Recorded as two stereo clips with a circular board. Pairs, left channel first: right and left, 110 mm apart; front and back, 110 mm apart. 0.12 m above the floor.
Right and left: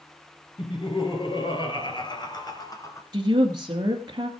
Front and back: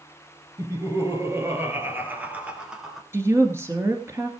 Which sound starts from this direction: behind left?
A woman speaking, at 3.1 s.